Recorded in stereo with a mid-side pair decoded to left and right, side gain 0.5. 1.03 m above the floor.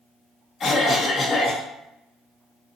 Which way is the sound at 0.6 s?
40° left.